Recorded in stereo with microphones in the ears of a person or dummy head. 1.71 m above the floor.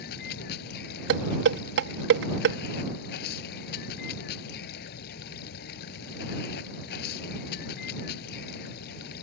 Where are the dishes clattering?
70° right (ahead or behind).